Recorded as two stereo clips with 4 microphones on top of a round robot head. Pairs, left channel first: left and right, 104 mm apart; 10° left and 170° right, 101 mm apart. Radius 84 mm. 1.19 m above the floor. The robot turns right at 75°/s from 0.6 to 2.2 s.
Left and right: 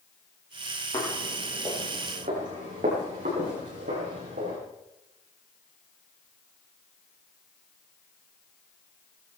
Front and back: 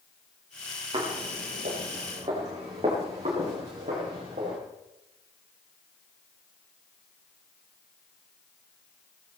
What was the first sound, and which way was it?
Footsteps, 150° left.